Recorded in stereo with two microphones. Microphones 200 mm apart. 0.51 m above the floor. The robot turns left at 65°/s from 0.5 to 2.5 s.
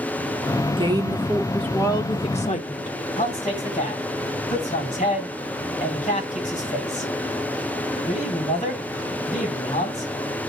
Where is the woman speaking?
130° right, 1.1 m; by 3.0 s 110° left, 1.1 m.